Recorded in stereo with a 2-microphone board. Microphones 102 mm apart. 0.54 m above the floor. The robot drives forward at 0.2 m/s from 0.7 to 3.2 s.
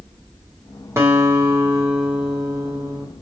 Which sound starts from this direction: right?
A guitar, at 1.0 s.